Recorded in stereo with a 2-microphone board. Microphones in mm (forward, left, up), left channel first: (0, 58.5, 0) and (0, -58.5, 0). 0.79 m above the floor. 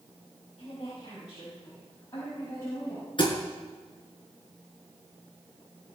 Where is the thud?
50° left (ahead or behind), 3.5 m.